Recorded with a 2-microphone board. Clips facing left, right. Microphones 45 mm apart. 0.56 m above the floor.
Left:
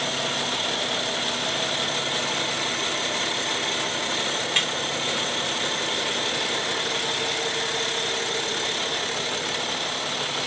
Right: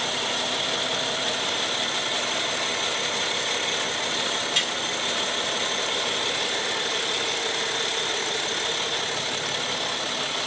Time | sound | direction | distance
4.6 | a snare drum | 35° left (ahead or behind) | 1.5 m